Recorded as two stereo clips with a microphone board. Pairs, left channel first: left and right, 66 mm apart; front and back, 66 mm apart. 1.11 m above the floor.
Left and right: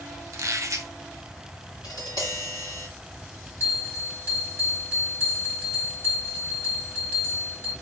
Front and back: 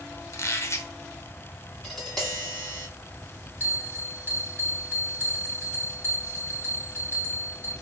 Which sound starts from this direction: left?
Tapping, at 1.8 s.